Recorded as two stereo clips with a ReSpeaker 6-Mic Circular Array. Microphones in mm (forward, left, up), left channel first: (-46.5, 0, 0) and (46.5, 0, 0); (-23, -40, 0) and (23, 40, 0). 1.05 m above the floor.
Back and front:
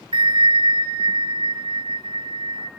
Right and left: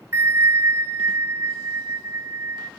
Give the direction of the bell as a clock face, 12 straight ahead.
12 o'clock.